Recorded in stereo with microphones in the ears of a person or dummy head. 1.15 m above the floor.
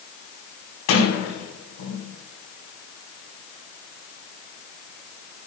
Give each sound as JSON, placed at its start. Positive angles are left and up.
{"t": 0.9, "sound": "a sliding door", "side_deg": 85, "distance_m": 4.5}